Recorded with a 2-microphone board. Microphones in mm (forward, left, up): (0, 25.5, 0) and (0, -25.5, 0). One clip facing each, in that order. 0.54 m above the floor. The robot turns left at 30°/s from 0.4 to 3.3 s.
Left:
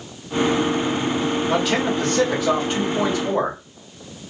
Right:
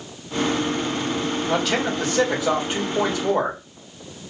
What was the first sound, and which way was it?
A man speaking, 10° left.